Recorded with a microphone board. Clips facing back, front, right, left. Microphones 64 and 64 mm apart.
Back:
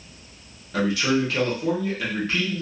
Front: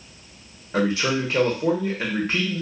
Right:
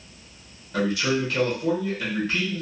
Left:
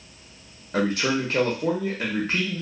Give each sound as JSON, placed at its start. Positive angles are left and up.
{"t": 0.7, "sound": "a man speaking", "azimuth_deg": 55, "distance_m": 1.0}